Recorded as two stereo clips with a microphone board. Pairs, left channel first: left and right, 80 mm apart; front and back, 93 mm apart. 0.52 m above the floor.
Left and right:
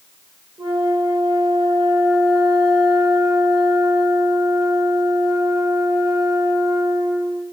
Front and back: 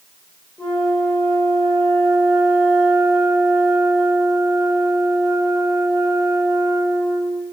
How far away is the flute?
About 8.5 m.